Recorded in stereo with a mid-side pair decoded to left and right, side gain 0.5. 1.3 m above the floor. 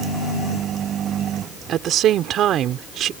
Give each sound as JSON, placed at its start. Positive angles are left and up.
{"t": 1.7, "sound": "a woman speaking", "azimuth_deg": -60}